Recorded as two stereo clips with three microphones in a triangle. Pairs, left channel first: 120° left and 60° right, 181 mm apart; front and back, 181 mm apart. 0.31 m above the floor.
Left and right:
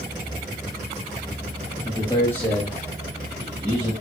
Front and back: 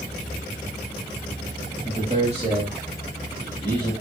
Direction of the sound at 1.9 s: 165° left.